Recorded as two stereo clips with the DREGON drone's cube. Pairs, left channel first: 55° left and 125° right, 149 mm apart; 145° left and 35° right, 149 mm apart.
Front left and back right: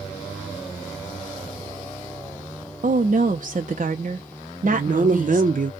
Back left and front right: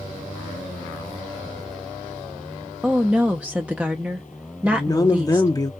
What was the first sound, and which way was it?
A woman speaking, 115° right.